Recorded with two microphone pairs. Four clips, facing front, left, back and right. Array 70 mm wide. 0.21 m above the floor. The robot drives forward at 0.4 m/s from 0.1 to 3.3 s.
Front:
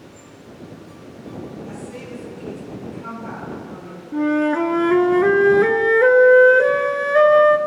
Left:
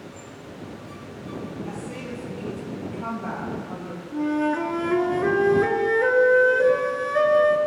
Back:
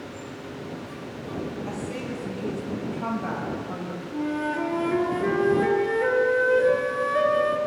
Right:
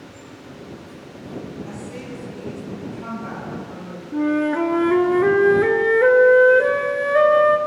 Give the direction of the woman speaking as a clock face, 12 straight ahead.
7 o'clock.